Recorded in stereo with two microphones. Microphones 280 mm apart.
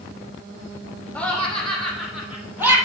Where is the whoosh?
No whoosh in this recording.